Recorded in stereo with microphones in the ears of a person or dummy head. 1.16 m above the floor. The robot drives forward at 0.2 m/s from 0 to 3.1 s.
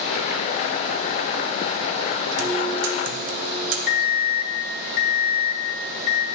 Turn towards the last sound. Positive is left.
turn(degrees=45)  # may be behind; listen again after turning